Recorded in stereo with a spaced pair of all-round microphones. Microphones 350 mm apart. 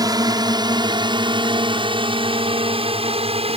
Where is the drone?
10° right (ahead or behind); by 3.6 s 15° right (ahead or behind).